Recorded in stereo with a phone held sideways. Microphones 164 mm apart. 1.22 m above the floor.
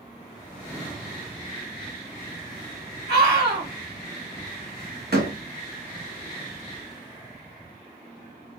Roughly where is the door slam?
Right.